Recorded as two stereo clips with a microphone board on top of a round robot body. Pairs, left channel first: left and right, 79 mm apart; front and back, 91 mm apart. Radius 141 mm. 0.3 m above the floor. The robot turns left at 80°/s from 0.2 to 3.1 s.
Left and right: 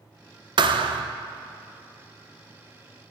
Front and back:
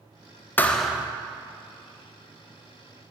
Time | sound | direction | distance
0.6 | a thud | 70° right | 0.6 m